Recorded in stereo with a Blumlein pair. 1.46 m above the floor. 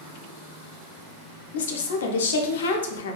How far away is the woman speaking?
About 0.5 m.